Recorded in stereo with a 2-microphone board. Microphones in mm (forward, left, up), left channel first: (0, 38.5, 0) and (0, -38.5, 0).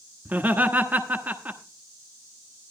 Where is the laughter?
20° right (ahead or behind), 1.1 m.